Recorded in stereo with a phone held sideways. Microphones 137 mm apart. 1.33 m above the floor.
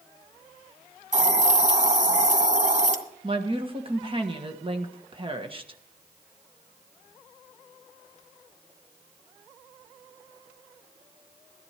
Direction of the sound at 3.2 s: 35° right (ahead or behind).